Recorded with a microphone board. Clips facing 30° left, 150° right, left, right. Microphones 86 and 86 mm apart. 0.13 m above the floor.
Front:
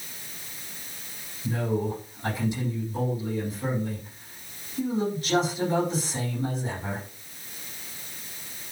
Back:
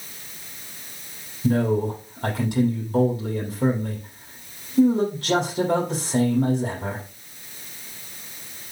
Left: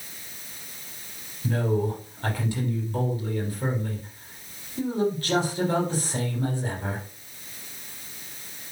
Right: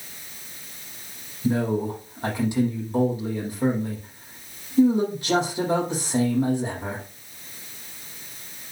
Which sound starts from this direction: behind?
A man speaking, at 1.4 s.